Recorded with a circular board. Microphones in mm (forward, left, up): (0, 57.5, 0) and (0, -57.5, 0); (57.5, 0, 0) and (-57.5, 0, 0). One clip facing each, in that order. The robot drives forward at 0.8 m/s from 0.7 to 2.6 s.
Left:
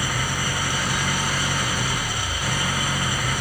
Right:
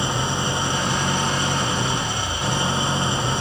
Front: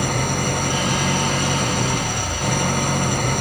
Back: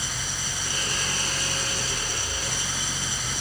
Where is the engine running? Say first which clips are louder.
Right 3 dB, front 15 dB; 25° right.